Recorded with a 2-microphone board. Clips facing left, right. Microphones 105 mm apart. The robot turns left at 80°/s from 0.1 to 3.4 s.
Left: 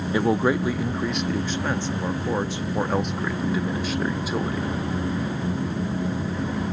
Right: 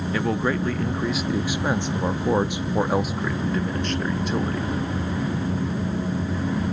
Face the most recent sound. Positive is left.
turn(degrees=5)  # may be behind; listen again after turning